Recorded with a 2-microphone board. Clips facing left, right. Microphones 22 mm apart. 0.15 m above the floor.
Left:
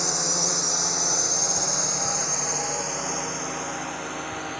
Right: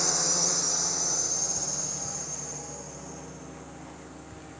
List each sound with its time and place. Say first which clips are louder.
0.0 s a drone: left 2 dB; 5° left (ahead or behind); by 4.6 s 75° left (ahead or behind)